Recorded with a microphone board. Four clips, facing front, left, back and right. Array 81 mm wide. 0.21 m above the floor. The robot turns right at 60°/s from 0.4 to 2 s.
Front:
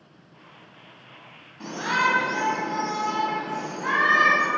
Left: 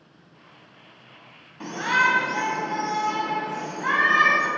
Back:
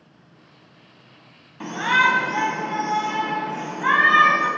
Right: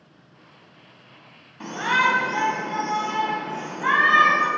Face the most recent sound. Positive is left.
turn(degrees=-160)